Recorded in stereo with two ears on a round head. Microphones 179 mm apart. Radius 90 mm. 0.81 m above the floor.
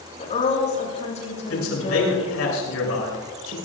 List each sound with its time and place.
0.2 s a woman speaking: 35° left (ahead or behind), 7 m
1.5 s a man speaking: 80° left, 8 m